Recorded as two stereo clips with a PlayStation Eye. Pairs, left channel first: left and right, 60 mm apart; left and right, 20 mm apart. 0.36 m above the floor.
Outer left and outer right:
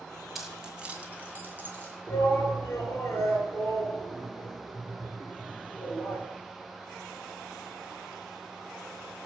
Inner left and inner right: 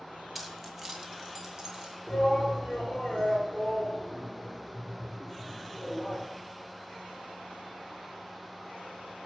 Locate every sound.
0.3 s keys jangling: centre (ahead or behind), 1.7 m; by 2.0 s 40° right (ahead or behind), 3 m
2.1 s a shout: 35° left (ahead or behind), 6 m